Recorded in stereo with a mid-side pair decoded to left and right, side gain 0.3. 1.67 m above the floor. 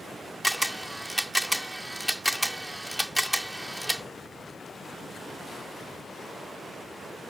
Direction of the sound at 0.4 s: 5° right.